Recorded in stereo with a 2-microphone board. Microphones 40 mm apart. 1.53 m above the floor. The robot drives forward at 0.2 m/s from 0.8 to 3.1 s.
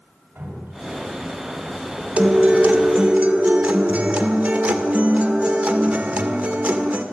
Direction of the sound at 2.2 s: 35° right (ahead or behind).